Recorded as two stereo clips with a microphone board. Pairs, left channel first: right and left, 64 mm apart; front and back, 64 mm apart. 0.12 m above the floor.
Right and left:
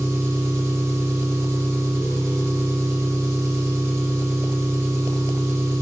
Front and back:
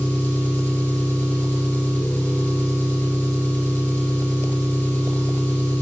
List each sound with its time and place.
0.0 s an engine running: 55° left, 2 m